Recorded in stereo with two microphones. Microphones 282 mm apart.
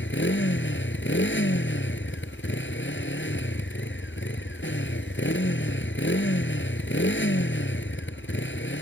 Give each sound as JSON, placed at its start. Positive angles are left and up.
{"t": 0.0, "sound": "a motorcycle", "side_deg": 45}